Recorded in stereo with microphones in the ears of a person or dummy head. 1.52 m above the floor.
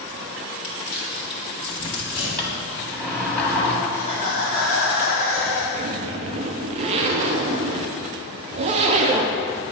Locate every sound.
0.6 s crumpling: 60° left (ahead or behind), 1.7 m
2.4 s a sliding door: 5° left (ahead or behind), 1.4 m
3.9 s laughter: 35° right (ahead or behind), 2 m
5.7 s a zipper: 30° right (ahead or behind), 0.5 m